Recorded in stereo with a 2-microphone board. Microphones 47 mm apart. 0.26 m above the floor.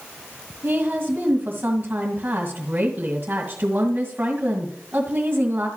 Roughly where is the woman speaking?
Right.